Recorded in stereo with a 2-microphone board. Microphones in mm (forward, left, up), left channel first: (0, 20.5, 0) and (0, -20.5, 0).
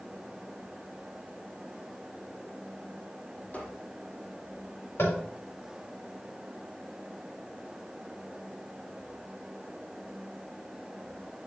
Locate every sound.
3.5 s a squeak: 35° left (ahead or behind), 1.7 m
5.0 s tapping: 80° left, 4 m